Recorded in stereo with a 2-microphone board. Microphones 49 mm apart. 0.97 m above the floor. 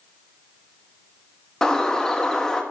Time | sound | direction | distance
1.6 | a bird | 10° left (ahead or behind) | 1.1 m